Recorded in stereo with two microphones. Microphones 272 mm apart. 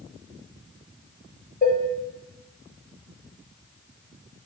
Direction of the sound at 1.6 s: 35° left (ahead or behind).